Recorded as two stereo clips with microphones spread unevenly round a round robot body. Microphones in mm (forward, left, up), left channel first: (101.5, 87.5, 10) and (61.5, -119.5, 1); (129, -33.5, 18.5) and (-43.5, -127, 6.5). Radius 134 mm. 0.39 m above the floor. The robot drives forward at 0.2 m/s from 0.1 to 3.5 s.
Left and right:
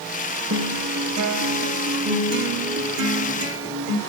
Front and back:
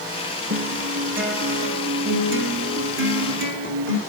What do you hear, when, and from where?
0.5 s a guitar: 130° right, 3 m; by 4.0 s 135° right, 3.5 m